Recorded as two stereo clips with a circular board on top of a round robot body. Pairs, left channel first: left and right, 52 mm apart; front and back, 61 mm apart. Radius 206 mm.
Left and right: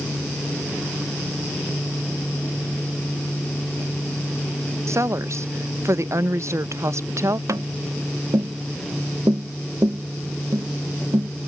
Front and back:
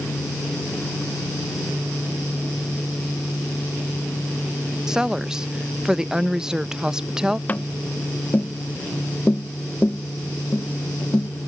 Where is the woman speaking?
105° right.